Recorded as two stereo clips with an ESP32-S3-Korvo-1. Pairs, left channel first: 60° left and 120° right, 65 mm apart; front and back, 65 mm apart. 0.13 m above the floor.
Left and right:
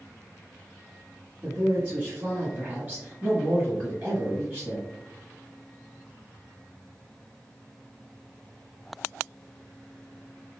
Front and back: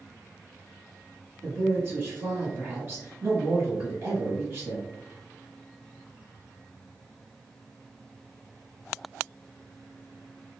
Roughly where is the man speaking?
Behind.